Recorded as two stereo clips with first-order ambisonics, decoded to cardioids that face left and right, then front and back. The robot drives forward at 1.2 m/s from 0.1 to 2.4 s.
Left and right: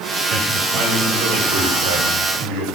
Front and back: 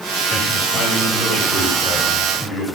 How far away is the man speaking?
About 7.5 m.